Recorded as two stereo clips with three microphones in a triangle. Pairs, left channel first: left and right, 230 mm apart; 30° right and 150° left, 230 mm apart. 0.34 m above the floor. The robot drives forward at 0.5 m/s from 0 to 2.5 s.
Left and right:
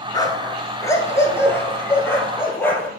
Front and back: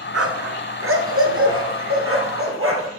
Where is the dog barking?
160° left, 1.1 m; by 2.9 s 170° left, 2.5 m.